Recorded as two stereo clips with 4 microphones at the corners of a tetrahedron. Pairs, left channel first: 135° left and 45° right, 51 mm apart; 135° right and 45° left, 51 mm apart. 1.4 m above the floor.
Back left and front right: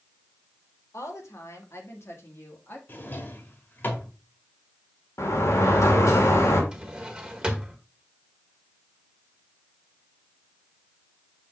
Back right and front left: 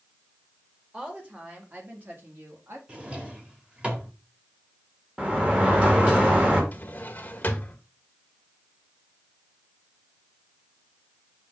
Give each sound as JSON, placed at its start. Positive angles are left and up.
{"t": 0.9, "sound": "a woman speaking", "azimuth_deg": 115, "distance_m": 2.0}
{"t": 2.9, "sound": "a drawer", "azimuth_deg": 105, "distance_m": 1.5}
{"t": 5.2, "sound": "a sliding door", "azimuth_deg": 110, "distance_m": 2.0}
{"t": 6.7, "sound": "a drawer", "azimuth_deg": -110, "distance_m": 1.2}